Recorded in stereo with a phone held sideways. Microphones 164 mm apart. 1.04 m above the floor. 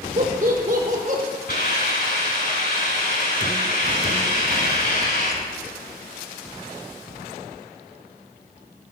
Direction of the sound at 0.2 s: 55° right (ahead or behind).